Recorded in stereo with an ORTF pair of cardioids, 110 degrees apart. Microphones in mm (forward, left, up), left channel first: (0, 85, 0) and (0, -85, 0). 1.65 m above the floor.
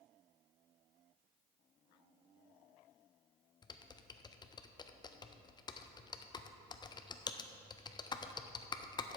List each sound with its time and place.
3.6 s typing on a keyboard: 25° left, 0.6 m